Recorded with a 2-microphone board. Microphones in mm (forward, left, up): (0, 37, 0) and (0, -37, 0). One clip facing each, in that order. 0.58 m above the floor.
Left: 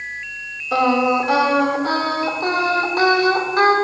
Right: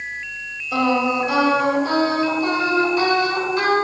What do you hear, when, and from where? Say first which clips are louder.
0.7 s singing: left 3 dB; 55° left (ahead or behind), 1.4 m